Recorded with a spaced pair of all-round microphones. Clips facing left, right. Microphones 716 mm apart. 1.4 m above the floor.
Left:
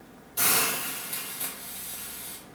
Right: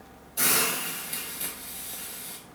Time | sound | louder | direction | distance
0.4 | a hiss | right 2 dB | 35° left (ahead or behind) | 2 m